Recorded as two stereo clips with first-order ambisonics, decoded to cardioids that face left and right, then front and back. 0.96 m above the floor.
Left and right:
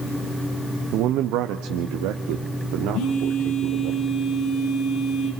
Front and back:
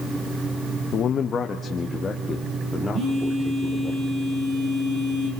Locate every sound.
0.9 s a man speaking: 50° right, 0.6 m; by 3.9 s 85° right, 2.5 m
2.9 s a phone buzzing: 130° left, 4 m